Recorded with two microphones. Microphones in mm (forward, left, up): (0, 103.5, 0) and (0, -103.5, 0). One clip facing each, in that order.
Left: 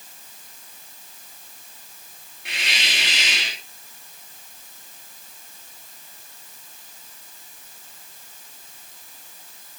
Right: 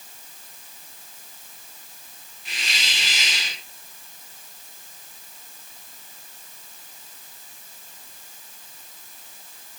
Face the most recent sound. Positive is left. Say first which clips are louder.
# left 3 dB
turn(degrees=65)  # may be behind; listen again after turning